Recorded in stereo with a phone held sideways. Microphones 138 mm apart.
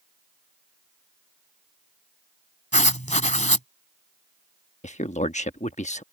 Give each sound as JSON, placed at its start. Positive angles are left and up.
{"t": 2.7, "sound": "writing", "side_deg": 60}
{"t": 4.8, "sound": "a man speaking", "side_deg": 60}